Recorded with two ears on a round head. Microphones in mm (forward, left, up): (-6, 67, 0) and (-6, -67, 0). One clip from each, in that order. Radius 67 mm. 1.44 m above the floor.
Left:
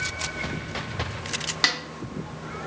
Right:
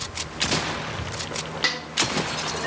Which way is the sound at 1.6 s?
25° left (ahead or behind).